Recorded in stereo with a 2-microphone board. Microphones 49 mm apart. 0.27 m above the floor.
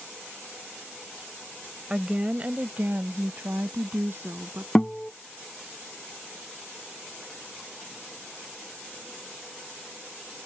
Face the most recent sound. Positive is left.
turn(degrees=15)  # may be behind; listen again after turning